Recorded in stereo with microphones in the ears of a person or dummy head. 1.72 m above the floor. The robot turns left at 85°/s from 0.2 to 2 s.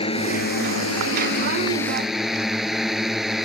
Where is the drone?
150° left; by 3.5 s 5° right.